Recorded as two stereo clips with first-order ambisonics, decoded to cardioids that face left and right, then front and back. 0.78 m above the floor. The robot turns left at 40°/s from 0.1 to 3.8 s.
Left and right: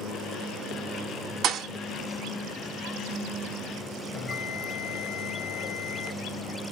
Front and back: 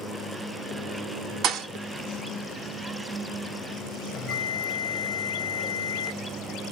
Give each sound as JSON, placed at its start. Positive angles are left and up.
{"t": 1.4, "sound": "a thud", "azimuth_deg": -135, "distance_m": 0.6}
{"t": 4.1, "sound": "a bell", "azimuth_deg": 35, "distance_m": 0.7}